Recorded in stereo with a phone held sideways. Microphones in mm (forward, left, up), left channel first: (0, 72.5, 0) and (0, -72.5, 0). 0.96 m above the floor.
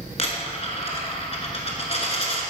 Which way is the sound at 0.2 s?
45° left (ahead or behind).